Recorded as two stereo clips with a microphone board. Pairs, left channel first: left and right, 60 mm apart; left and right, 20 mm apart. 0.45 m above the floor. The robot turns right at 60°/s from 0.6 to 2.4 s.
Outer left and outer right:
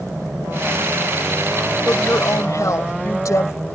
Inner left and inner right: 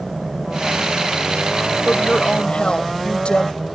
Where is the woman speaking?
45° left; by 3.5 s 75° left.